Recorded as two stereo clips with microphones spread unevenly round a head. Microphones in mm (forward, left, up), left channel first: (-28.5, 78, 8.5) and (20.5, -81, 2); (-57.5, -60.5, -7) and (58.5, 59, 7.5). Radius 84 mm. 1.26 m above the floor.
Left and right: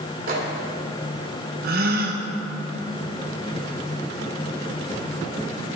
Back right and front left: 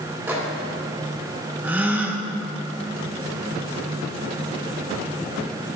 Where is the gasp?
35° right, 0.8 m.